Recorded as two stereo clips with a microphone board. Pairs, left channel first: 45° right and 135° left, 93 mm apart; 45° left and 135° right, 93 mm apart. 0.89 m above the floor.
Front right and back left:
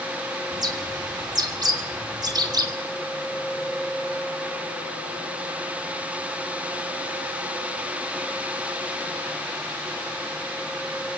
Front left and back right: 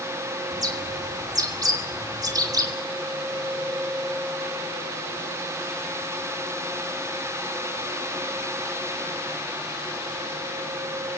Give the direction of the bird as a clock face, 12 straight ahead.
6 o'clock.